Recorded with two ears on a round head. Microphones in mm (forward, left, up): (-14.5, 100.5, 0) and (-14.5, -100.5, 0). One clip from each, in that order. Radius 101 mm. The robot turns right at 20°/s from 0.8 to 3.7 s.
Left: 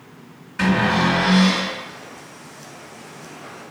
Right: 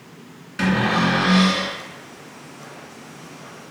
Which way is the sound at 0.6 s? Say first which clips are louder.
Left 1 dB; 25° right (ahead or behind).